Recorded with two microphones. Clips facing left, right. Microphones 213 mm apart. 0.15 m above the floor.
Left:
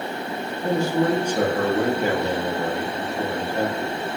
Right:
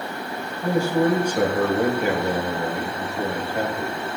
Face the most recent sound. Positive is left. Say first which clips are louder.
# right 1 dB
turn(degrees=-10)  # may be behind; listen again after turning